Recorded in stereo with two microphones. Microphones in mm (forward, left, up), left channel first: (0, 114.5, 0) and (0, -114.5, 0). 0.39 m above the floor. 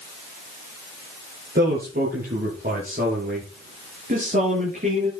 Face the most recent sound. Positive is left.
turn(degrees=-40)  # may be behind; listen again after turning